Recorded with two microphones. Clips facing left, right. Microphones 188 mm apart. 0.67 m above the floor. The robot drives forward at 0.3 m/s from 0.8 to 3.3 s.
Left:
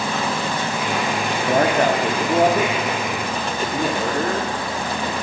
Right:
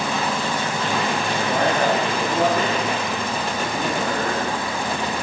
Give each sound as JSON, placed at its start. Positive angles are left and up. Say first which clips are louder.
{"t": 1.5, "sound": "a man speaking", "louder": "left 4 dB", "side_deg": 50, "distance_m": 1.0}